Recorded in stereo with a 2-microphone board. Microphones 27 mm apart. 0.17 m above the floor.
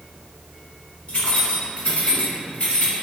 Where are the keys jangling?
45° left (ahead or behind), 1.3 m.